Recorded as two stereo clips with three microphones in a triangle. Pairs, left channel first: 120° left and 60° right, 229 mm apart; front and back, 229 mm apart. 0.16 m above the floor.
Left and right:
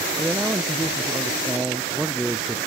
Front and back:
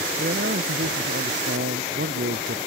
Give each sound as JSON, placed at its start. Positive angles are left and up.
{"t": 0.2, "sound": "a man speaking", "azimuth_deg": -145}